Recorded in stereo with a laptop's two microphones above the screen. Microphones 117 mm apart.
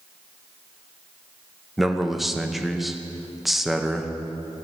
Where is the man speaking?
Centre (ahead or behind), 0.7 m.